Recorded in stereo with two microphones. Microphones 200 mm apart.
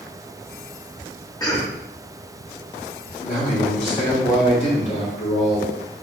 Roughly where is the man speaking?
Left.